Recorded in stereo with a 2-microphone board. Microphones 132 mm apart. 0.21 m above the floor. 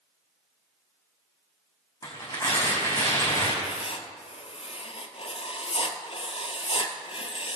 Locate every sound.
2.0 s tearing paper: 35° left (ahead or behind), 3.5 m
3.6 s writing: 45° left (ahead or behind), 0.8 m